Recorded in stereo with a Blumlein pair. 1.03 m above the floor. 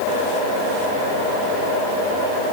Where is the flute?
No flute in this recording.